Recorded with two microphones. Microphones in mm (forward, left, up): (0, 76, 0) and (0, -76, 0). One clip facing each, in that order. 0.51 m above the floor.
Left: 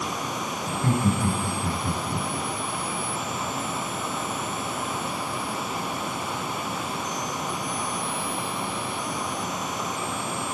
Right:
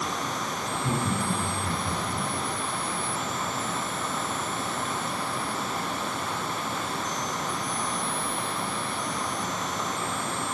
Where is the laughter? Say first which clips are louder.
Left 5 dB; 65° left (ahead or behind), 4 m; by 2.3 s 75° left (ahead or behind), 4.5 m.